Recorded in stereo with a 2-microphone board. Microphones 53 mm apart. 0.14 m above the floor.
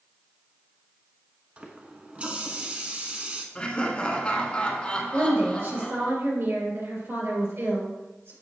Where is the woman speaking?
55° right (ahead or behind), 3 m.